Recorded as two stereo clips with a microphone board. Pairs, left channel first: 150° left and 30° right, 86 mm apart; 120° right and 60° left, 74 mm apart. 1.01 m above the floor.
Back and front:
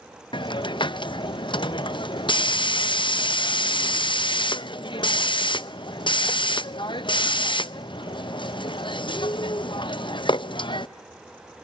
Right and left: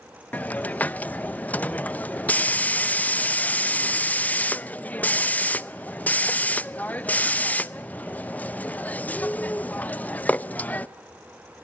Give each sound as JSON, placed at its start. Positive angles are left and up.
{"t": 0.3, "sound": "a hiss", "azimuth_deg": 170, "distance_m": 0.5}